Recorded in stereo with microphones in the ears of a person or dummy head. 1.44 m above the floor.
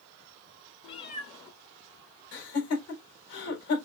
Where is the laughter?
55° left (ahead or behind), 4.5 m.